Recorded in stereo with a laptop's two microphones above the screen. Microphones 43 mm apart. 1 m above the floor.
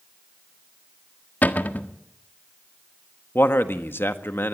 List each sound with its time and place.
1.4 s a cupboard door: 40° left (ahead or behind), 1.6 m
3.4 s a man speaking: 60° left (ahead or behind), 1.6 m